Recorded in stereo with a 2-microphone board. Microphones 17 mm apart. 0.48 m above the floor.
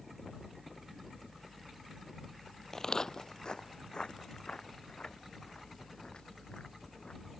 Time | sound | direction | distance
2.7 | footsteps | 25° left (ahead or behind) | ?